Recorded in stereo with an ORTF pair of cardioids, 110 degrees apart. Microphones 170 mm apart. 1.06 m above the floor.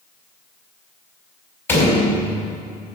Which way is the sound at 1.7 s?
15° left.